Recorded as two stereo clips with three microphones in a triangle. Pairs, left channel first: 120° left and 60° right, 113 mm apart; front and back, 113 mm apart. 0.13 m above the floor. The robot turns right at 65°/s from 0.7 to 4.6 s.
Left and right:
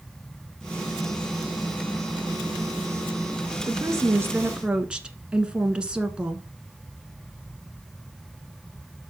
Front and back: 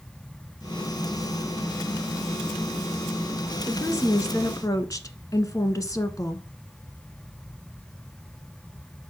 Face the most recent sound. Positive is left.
turn(degrees=15)